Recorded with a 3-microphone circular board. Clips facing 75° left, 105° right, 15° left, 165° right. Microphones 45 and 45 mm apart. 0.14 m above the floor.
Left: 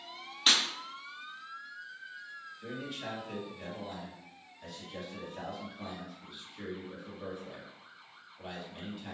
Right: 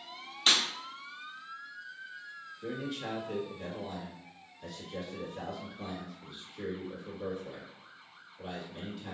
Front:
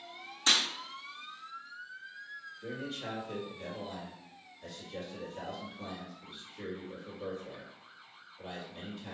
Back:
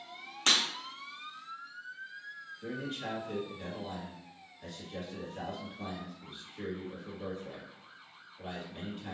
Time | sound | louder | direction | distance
0.5 | breaking glass | even, even | 160° left | 1.8 m
2.6 | a man speaking | right 4 dB, back 2 dB | 155° left | 1.9 m